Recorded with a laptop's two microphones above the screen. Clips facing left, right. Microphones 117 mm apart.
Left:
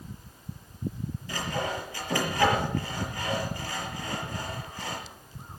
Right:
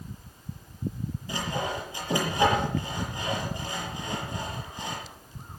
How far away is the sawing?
About 6 m.